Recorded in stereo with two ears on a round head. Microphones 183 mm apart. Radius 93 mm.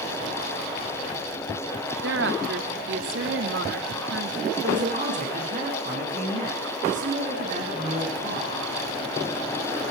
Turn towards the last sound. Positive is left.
turn(degrees=-45)  # may be behind; listen again after turning